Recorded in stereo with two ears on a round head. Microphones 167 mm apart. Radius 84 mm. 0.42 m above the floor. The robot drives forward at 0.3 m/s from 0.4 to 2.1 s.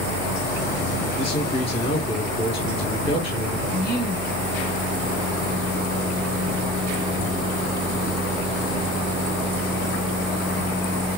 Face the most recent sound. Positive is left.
turn(degrees=55)  # may be behind; listen again after turning